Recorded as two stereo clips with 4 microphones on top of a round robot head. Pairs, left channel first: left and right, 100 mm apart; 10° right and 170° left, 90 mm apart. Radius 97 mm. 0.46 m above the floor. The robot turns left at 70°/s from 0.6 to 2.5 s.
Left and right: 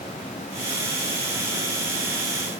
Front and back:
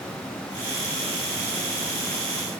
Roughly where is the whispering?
I don't hear whispering.